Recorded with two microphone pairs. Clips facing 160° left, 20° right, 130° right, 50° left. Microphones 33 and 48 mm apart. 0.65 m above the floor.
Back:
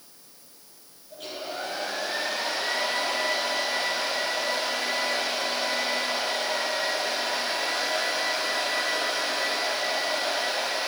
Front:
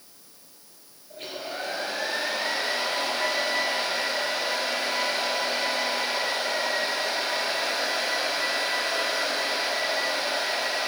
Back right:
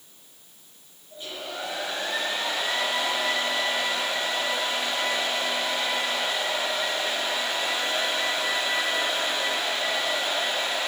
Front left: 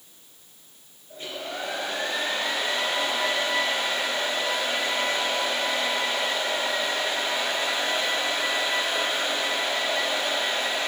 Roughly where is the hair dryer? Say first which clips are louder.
Even, front left 2 dB; ahead.